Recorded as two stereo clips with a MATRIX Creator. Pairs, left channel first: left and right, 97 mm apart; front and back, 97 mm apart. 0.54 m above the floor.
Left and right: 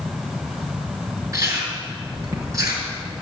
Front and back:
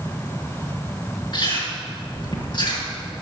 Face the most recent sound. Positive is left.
turn(degrees=-35)